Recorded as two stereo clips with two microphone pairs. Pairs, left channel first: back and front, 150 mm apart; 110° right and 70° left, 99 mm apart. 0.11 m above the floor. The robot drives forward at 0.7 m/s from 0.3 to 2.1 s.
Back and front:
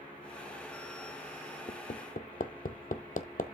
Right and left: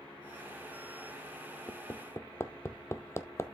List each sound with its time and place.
1.7 s hammering: 165° right, 0.6 m; by 3.4 s 170° right, 0.8 m